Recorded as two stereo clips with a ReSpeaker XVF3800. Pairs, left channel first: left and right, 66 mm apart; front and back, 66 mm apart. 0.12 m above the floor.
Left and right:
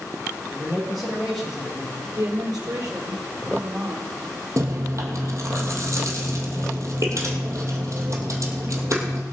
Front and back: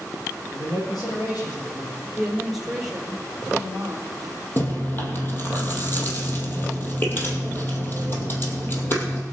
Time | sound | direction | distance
0.5 | a man speaking | straight ahead | 6.5 m
2.1 | a woman speaking | 95° right | 3.5 m
4.6 | chewing | 55° right | 2.5 m